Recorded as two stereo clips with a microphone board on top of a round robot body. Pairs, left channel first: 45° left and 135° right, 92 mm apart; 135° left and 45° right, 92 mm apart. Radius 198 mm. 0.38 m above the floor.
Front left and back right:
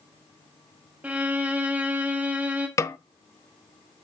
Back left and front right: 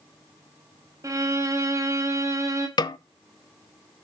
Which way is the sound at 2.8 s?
100° left.